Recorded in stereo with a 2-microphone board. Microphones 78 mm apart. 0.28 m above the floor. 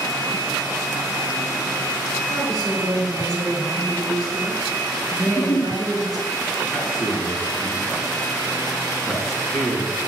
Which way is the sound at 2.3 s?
45° left (ahead or behind).